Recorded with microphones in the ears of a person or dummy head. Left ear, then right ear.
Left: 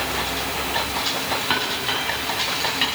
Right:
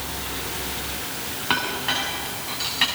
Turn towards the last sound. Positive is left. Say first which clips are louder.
# right 3 dB
turn(degrees=0)  # may be behind; listen again after turning